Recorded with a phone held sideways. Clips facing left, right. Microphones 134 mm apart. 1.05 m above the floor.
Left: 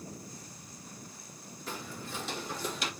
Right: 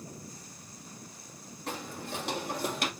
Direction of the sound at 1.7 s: 70° right (ahead or behind).